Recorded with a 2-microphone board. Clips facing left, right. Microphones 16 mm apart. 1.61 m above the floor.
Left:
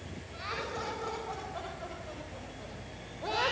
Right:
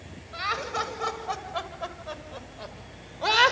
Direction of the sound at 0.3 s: 55° right (ahead or behind).